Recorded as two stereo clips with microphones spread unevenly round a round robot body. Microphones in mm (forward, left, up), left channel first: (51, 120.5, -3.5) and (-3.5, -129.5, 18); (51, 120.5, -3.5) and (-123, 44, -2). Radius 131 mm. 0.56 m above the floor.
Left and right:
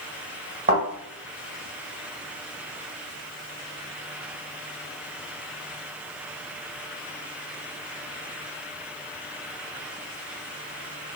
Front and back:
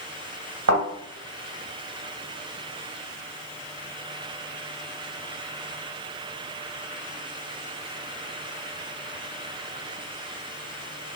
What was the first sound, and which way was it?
A thud, 165° right.